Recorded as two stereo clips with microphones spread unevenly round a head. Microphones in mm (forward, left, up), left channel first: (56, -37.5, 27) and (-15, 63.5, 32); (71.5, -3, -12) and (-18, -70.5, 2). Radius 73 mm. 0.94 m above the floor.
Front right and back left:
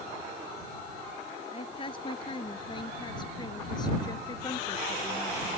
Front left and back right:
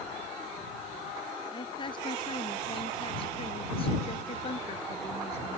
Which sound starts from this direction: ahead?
A woman speaking, at 1.5 s.